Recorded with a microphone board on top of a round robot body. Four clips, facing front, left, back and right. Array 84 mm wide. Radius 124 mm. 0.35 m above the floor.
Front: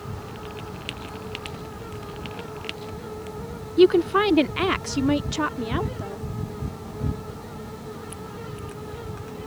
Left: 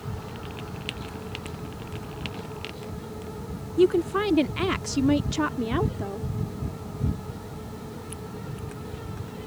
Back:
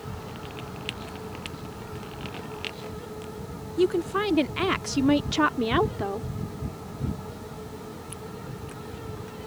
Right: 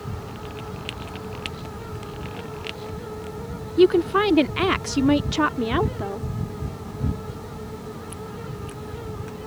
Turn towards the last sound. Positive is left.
turn(degrees=-165)